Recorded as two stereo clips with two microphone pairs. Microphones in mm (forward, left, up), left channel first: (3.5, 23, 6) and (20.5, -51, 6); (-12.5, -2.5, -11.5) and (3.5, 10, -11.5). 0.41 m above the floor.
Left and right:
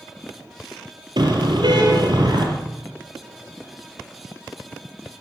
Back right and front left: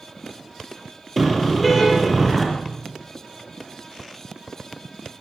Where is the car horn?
60° right, 6 m.